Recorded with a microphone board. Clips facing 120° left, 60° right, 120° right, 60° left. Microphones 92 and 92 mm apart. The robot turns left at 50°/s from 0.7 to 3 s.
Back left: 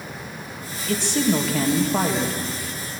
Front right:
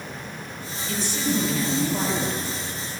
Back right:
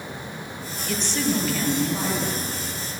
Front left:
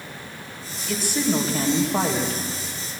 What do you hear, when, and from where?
0.9 s a woman speaking: 150° left, 3 m; by 2.4 s 75° left, 3 m